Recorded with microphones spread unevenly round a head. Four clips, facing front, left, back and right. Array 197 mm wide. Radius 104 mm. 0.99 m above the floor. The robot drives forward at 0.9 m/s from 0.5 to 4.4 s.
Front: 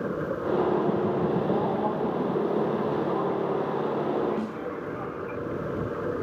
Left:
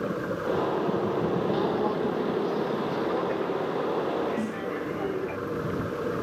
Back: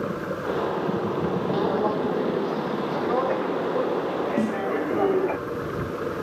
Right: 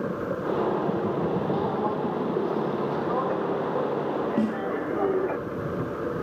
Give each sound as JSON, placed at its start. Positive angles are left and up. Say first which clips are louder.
{"t": 1.5, "sound": "footsteps", "louder": "even, back 3 dB", "azimuth_deg": 155}
{"t": 4.4, "sound": "a snare drum", "louder": "right 5 dB, back 7 dB", "azimuth_deg": -140}